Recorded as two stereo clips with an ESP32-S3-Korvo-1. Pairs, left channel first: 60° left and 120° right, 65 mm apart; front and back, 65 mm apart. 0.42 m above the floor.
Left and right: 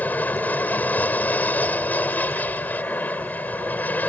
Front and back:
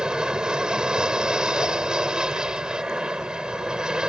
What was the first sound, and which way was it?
An aircraft, 110° left.